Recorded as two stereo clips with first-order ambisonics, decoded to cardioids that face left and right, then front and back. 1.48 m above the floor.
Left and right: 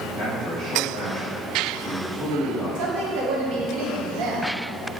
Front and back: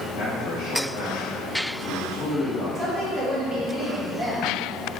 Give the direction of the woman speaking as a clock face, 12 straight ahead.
3 o'clock.